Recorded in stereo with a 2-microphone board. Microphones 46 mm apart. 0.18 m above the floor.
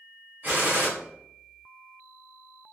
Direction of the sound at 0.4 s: 35° right (ahead or behind).